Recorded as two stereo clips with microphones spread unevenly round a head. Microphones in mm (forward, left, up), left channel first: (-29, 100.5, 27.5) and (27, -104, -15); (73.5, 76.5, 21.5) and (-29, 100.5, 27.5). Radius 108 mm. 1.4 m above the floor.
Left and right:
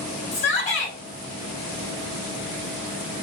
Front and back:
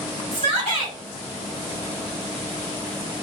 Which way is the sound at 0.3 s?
165° left.